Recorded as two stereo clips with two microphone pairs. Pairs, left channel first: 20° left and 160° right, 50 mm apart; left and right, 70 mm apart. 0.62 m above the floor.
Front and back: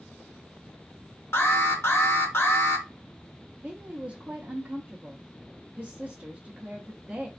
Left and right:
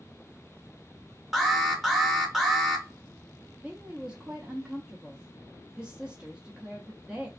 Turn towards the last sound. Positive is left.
turn(degrees=-145)